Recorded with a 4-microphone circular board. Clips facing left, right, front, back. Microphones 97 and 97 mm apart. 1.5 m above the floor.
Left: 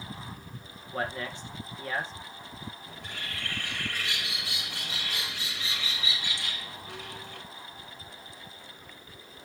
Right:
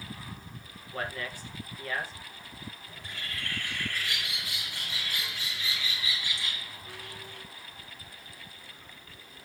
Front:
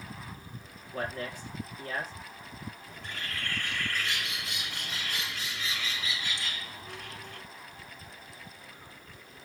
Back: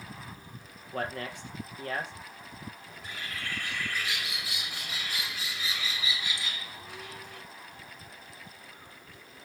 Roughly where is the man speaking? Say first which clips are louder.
Left 3 dB, back 1 dB; behind.